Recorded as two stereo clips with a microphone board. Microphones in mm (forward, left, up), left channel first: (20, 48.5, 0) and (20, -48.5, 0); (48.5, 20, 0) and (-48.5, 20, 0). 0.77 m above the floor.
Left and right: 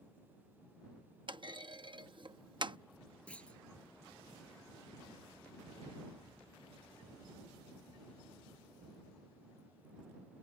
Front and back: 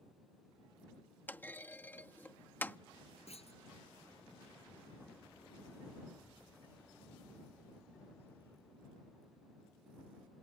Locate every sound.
1.3 s a clunk: 65° right
3.3 s a clunk: 10° left